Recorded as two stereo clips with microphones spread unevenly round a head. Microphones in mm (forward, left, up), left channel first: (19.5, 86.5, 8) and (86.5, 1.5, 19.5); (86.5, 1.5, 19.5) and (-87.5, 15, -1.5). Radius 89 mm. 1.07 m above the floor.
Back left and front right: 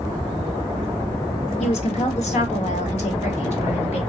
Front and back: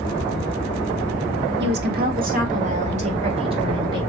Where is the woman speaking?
160° left, 1.0 m; by 4.0 s 110° left, 1.8 m.